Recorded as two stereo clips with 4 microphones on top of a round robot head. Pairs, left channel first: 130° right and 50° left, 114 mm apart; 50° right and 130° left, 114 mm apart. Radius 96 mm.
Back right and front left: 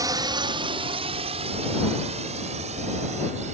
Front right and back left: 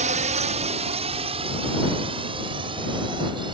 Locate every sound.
0.0 s a drone: 110° left; by 3.5 s 80° left